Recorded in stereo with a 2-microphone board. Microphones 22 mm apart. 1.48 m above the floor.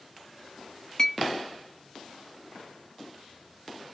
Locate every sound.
1.0 s a clink: 30° left (ahead or behind), 0.8 m